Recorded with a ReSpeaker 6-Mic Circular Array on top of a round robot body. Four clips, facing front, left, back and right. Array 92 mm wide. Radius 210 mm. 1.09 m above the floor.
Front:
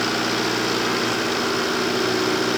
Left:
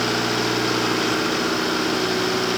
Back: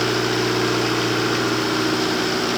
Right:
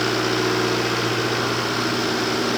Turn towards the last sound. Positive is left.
No sound to turn to.